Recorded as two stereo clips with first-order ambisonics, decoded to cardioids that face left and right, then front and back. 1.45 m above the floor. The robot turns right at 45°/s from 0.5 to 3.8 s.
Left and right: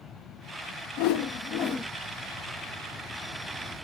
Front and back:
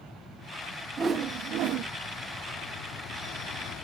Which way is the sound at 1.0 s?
110° left.